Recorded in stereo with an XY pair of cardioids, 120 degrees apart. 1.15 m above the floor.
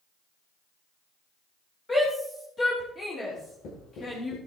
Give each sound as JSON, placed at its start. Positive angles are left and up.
{"t": 1.9, "sound": "a shout", "azimuth_deg": 15, "distance_m": 3.0}
{"t": 3.3, "sound": "writing", "azimuth_deg": 70, "distance_m": 8.0}